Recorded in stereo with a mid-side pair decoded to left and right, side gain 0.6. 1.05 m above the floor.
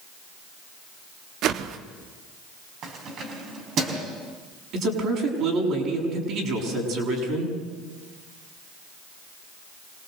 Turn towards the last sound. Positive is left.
turn(degrees=-60)